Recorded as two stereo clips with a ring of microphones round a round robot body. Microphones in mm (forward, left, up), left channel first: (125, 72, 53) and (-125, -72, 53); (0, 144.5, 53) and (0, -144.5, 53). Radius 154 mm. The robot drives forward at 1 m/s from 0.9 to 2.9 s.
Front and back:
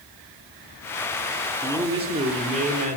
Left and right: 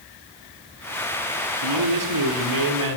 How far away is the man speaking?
About 5.5 m.